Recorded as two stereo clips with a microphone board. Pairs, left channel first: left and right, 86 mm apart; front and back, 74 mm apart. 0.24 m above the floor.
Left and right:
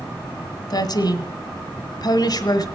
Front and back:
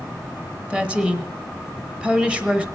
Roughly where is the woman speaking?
Left.